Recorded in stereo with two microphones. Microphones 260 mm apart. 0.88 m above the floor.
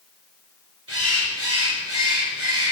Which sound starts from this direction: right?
A bird, at 0.9 s.